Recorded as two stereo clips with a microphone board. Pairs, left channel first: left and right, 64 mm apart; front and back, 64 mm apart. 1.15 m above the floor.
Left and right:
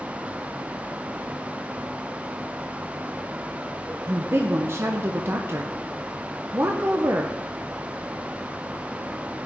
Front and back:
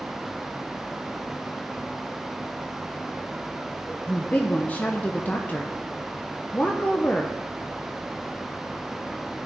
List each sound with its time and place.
4.1 s a woman speaking: 55° right, 0.7 m